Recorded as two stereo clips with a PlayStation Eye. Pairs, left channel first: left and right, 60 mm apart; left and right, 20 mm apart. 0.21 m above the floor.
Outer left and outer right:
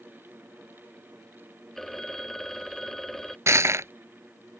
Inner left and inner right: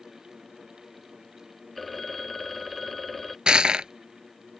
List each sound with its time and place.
1.8 s a phone ringing: 5° left (ahead or behind)
3.5 s crushing: 50° right (ahead or behind)